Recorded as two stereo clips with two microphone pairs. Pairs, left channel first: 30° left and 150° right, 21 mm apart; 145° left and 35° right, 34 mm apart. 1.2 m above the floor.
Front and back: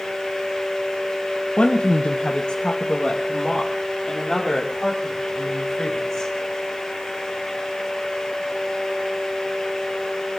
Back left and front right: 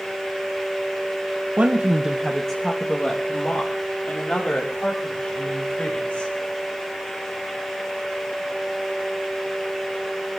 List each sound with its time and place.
1.6 s a woman speaking: 5° left, 1.0 m; by 6.3 s 105° left, 5.5 m